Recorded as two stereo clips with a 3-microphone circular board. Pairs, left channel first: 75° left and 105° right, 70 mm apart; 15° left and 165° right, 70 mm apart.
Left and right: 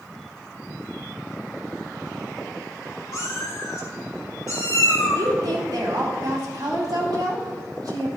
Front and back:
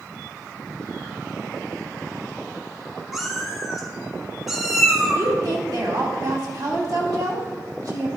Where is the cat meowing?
110° left, 2.0 m.